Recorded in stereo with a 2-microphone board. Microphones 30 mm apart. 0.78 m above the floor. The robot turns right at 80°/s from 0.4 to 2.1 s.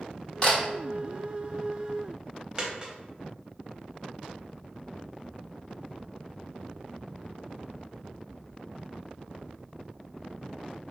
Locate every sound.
0.4 s a camera shutter: 25° left (ahead or behind), 0.8 m; by 0.6 s 45° left (ahead or behind), 0.8 m
2.6 s a dropped coin: 25° right (ahead or behind), 0.6 m